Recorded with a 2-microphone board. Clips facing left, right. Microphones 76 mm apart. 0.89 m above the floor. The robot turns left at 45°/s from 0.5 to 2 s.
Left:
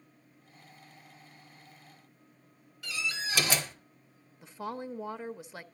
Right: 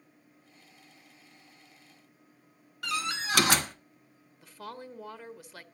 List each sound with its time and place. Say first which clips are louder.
2.8 s a door slam: right 4 dB; 75° right (ahead or behind), 1.2 m
4.4 s a woman speaking: left 5 dB; 20° left (ahead or behind), 0.6 m